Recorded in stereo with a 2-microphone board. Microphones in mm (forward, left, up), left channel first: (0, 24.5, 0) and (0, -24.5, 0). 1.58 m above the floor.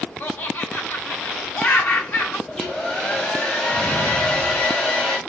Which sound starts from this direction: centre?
A hair dryer, at 2.5 s.